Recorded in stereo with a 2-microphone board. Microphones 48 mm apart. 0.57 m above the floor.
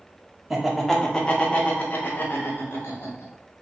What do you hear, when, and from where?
0.5 s laughter: 5° right (ahead or behind), 0.8 m; by 3.3 s 55° left (ahead or behind), 1.7 m